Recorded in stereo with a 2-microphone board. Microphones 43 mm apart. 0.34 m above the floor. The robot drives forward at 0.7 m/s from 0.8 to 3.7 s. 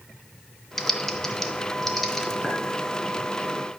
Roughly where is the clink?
Centre.